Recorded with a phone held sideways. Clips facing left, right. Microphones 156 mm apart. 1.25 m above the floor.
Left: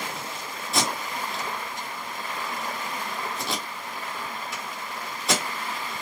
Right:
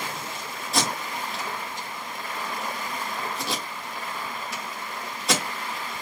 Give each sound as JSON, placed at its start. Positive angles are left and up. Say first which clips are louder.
{"t": 0.7, "sound": "tape being pulled", "louder": "even", "side_deg": 0, "distance_m": 1.8}